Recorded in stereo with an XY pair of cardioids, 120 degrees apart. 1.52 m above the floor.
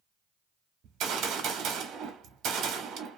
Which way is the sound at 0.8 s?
65° right.